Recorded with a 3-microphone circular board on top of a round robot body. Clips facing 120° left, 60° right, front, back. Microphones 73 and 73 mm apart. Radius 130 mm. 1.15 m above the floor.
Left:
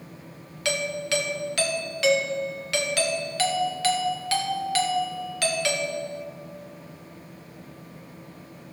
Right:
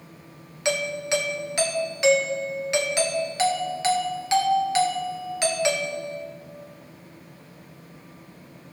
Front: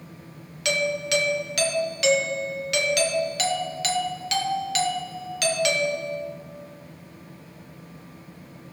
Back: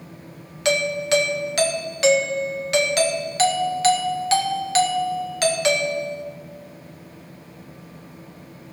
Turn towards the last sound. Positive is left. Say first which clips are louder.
# right 2 dB, back 4 dB
turn(degrees=-130)